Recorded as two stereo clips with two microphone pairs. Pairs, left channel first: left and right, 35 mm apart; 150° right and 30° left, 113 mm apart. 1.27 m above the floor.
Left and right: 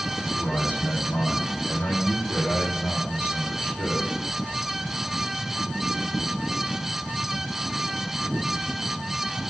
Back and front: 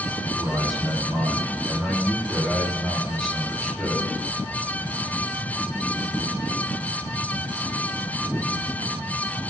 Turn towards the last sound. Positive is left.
turn(degrees=115)